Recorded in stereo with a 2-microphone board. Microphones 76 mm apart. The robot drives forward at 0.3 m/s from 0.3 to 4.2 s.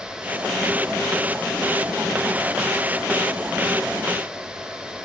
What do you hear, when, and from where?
Only background noise.